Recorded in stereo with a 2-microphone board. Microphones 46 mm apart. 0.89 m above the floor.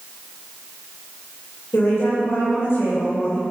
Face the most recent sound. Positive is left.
turn(degrees=75)  # may be behind; listen again after turning